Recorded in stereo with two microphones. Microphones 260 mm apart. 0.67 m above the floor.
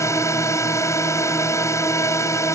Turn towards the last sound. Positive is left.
turn(degrees=10)  # may be behind; listen again after turning